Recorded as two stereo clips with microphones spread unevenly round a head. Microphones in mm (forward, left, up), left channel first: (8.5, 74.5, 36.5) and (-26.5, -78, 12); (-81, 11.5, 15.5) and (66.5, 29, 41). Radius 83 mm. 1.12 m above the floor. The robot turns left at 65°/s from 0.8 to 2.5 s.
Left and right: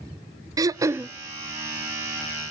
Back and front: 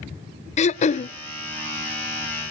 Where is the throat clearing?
160° right, 0.6 m; by 1.1 s straight behind, 0.6 m.